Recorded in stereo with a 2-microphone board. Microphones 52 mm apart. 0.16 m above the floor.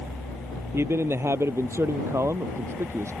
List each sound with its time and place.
0.7 s a man speaking: 55° right (ahead or behind); by 3.1 s 60° right (ahead or behind)